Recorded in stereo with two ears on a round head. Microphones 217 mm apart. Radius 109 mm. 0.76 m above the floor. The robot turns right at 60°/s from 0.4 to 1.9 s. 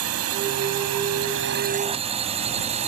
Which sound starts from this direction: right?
A drone, at 0.0 s.